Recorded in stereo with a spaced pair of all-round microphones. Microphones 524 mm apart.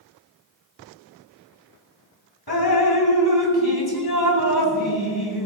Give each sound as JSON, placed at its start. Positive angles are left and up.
{"t": 2.5, "sound": "dripping", "side_deg": 45, "distance_m": 3.5}